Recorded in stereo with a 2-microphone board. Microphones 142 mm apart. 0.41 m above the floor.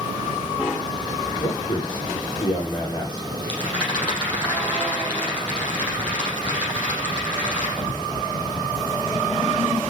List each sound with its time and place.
1.4 s a man speaking: 35° left (ahead or behind), 8 m
3.4 s a rattle: 10° left (ahead or behind), 7 m